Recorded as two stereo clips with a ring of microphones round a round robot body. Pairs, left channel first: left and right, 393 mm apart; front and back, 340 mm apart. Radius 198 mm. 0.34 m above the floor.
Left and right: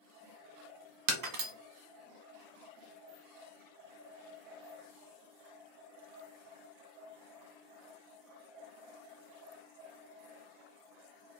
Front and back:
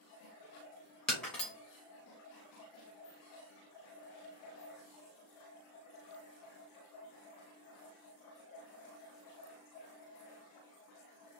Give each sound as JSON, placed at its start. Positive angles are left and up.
{"t": 1.1, "sound": "breaking glass", "azimuth_deg": -85, "distance_m": 0.8}